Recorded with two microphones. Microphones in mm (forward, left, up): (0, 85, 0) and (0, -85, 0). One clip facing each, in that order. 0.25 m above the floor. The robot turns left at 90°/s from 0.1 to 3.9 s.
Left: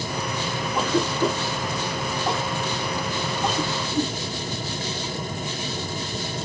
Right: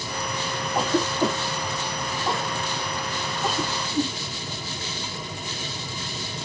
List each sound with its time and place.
0.8 s a cough: 40° right (ahead or behind), 1.8 m; by 4.1 s 5° left (ahead or behind), 1.8 m